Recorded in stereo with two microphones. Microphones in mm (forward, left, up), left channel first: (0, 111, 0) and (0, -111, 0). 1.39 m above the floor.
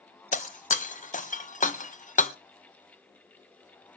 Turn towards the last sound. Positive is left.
turn(degrees=35)  # may be behind; listen again after turning